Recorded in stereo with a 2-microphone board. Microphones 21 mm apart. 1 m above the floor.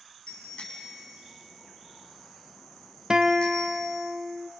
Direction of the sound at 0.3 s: 55° left (ahead or behind).